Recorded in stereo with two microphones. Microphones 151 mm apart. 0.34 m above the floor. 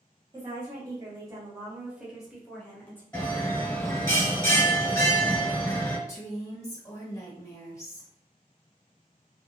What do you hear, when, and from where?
0.3 s a woman speaking: 35° right (ahead or behind), 1.2 m; by 3.0 s 15° left (ahead or behind), 1.0 m
3.1 s a bell: 15° left (ahead or behind), 1.3 m
6.1 s a woman speaking: 20° left (ahead or behind), 1.1 m